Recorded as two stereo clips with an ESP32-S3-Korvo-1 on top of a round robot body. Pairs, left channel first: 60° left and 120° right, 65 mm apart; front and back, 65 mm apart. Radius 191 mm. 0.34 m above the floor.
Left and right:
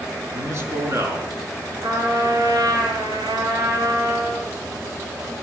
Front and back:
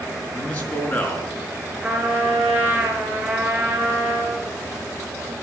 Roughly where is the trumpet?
Behind right.